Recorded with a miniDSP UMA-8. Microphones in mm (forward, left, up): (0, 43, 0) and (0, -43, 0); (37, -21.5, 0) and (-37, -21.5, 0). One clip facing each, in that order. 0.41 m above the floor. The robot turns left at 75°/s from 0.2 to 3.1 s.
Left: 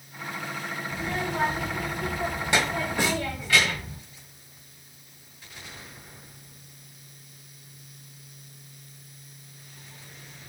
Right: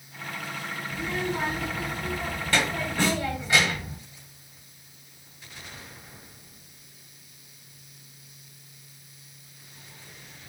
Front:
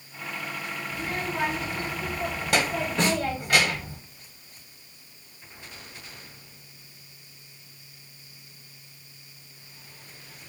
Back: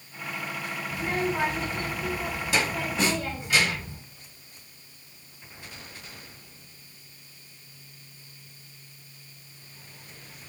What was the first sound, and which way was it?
A child speaking, 140° left.